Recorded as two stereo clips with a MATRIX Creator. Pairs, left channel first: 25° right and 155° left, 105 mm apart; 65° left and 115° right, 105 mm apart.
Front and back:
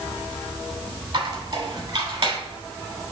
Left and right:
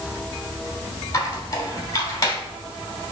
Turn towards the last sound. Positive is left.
turn(degrees=125)